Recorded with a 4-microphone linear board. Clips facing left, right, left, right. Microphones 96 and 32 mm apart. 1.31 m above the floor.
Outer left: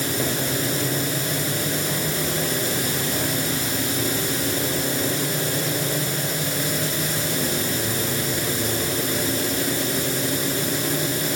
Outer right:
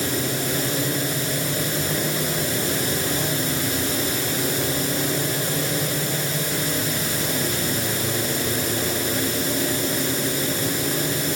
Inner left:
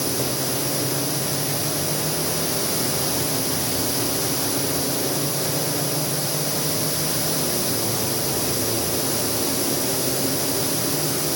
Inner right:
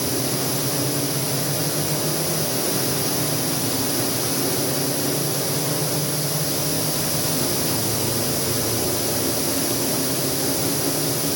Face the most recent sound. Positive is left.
No sound to turn to.